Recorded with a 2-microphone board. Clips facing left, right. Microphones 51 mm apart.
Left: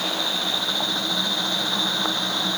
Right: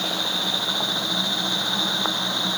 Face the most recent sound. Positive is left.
No sound to turn to.